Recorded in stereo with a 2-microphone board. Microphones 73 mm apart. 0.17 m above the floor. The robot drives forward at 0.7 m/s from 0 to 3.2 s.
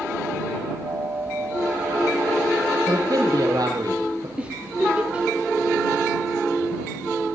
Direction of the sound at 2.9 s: 60° right (ahead or behind).